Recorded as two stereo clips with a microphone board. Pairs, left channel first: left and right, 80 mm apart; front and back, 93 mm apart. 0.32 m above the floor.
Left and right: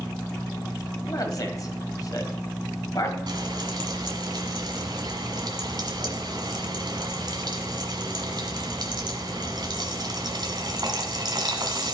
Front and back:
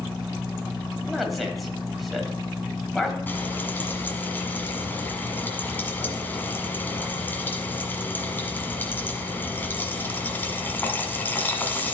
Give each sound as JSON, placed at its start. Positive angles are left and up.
{"t": 1.1, "sound": "a man speaking", "azimuth_deg": 90, "distance_m": 1.8}
{"t": 3.3, "sound": "frying", "azimuth_deg": -70, "distance_m": 1.6}